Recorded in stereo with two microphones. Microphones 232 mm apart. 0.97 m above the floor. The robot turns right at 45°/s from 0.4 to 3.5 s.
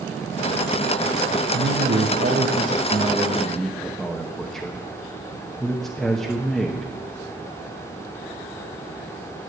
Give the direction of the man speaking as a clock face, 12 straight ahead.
3 o'clock.